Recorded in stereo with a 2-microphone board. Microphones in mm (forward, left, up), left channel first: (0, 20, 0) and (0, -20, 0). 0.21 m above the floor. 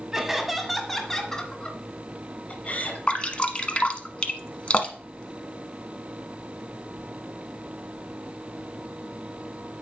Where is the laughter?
10° right (ahead or behind), 1.4 m; by 3.0 s 45° left (ahead or behind), 2.0 m.